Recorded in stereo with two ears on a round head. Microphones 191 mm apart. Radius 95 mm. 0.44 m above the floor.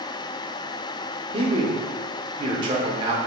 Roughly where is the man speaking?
Right.